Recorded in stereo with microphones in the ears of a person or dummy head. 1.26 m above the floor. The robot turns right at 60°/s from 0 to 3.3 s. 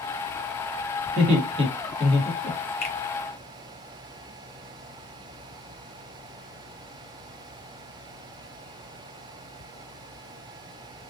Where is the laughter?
60° right (ahead or behind), 1.6 m; by 2.6 s 35° left (ahead or behind), 1.6 m.